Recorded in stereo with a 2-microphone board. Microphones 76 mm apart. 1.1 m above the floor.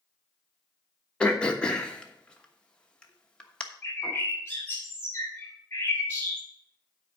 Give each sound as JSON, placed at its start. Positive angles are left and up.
{"t": 1.2, "sound": "throat clearing", "side_deg": 15, "distance_m": 1.1}
{"t": 3.8, "sound": "a bird", "side_deg": 30, "distance_m": 3.5}